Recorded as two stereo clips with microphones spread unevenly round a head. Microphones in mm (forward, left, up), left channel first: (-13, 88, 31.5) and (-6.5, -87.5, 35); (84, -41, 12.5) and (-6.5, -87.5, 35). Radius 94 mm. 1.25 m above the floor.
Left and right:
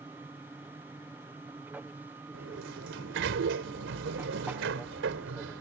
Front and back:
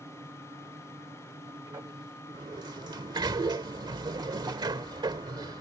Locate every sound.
0.0 s an aircraft: 160° right
2.3 s a sliding door: 110° right